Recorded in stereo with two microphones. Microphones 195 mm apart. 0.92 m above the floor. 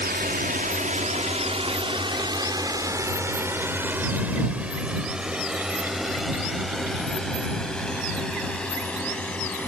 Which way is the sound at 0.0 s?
55° right (ahead or behind).